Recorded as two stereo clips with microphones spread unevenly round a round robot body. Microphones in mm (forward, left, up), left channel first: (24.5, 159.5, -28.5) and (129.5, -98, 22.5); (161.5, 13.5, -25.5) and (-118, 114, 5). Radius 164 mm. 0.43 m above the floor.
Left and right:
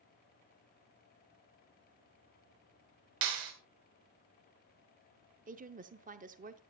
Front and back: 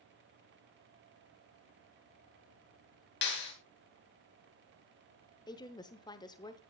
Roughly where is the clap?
Right.